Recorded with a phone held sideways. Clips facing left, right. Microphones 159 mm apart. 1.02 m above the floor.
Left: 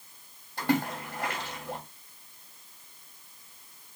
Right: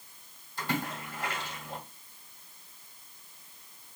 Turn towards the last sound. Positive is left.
turn(degrees=65)  # may be behind; listen again after turning